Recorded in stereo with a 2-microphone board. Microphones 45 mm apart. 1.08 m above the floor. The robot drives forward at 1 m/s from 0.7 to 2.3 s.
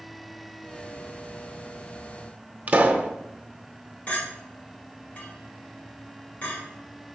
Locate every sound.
2.7 s a pop: 30° right (ahead or behind), 0.8 m
4.1 s a clink: 35° left (ahead or behind), 4 m